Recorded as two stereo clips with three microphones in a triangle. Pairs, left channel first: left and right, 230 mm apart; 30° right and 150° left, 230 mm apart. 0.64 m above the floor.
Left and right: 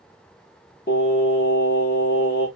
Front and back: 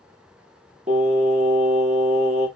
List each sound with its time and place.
0.9 s singing: 105° left, 0.9 m